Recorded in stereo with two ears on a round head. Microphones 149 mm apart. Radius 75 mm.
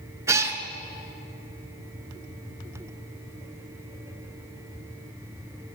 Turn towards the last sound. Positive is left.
turn(degrees=-20)  # may be behind; listen again after turning